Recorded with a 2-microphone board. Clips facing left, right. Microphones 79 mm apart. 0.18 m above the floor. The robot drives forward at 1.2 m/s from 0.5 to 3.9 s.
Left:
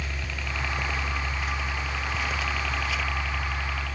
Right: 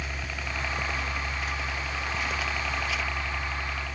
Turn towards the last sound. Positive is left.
turn(degrees=-10)  # may be behind; listen again after turning